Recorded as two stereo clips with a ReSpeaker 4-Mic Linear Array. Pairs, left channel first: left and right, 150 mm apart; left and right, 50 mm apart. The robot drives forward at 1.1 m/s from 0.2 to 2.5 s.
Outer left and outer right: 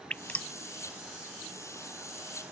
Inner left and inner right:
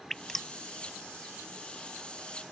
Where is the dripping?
10° left (ahead or behind).